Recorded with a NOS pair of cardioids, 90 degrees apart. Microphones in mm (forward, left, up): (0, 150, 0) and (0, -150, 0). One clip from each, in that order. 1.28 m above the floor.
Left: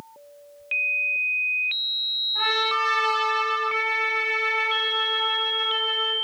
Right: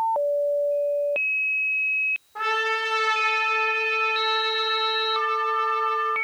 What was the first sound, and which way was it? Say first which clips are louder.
A trumpet: left 2 dB; 25° right.